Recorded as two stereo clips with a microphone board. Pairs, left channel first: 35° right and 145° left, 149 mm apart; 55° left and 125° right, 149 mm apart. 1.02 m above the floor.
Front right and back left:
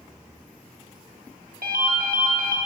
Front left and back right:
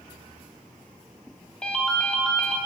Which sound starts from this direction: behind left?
A ringtone, at 1.6 s.